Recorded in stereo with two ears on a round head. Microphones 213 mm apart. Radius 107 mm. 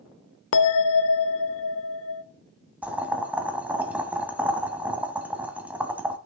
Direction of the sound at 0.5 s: 60° left (ahead or behind).